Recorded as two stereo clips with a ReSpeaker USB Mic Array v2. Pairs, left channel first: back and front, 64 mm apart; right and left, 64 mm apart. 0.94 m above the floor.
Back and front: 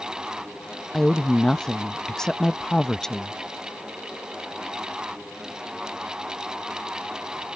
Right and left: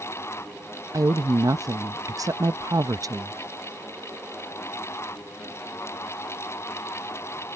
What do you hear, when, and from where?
0.9 s a woman speaking: 100° left